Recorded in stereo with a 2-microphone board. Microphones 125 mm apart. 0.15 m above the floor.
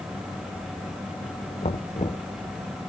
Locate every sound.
1.6 s knocking: 60° left (ahead or behind)